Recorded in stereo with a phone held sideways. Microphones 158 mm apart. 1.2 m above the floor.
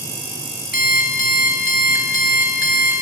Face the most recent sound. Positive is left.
turn(degrees=65)  # may be behind; listen again after turning